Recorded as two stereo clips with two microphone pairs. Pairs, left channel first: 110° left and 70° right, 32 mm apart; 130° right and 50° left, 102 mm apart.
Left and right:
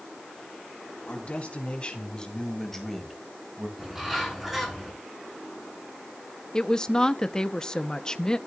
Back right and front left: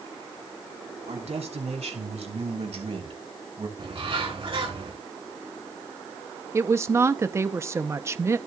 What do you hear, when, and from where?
1.1 s a man speaking: 60° left, 4 m; by 3.7 s straight ahead, 2.5 m
3.8 s a bird: 15° left, 4 m
6.5 s a woman speaking: 60° left, 0.6 m